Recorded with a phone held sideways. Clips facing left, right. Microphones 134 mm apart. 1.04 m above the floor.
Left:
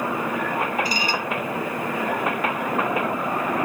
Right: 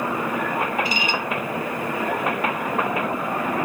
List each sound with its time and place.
0.8 s dishes clattering: 40° left (ahead or behind)